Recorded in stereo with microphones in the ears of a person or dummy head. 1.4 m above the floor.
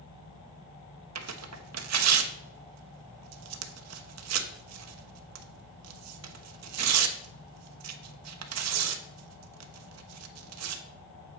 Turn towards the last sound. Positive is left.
turn(degrees=-80)